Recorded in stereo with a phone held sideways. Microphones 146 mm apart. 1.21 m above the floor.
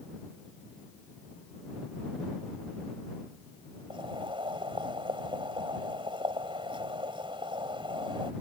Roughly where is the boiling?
Right.